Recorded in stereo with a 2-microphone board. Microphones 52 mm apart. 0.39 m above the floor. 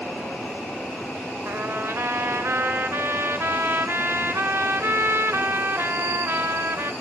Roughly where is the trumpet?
Right.